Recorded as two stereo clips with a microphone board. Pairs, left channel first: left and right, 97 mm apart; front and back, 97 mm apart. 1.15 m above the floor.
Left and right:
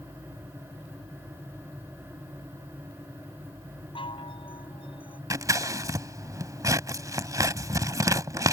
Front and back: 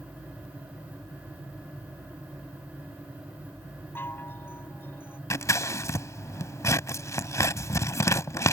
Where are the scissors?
50° right.